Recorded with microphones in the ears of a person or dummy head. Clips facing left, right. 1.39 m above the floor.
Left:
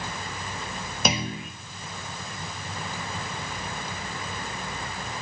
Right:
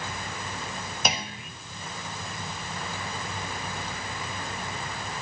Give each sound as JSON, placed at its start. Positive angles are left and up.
{"t": 1.1, "sound": "a clunk", "side_deg": 70, "distance_m": 1.7}